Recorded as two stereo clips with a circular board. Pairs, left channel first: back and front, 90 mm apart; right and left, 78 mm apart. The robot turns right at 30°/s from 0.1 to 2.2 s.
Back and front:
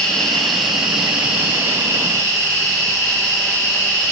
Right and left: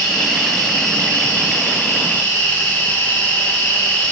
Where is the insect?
100° right, 2 m; by 4.1 s 40° right, 2 m.